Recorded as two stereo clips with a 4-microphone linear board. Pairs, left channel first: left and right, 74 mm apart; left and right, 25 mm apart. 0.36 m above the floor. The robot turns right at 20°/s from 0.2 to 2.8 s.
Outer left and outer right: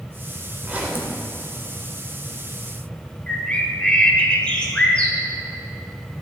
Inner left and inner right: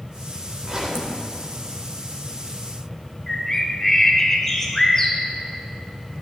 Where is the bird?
15° left (ahead or behind), 1.0 m.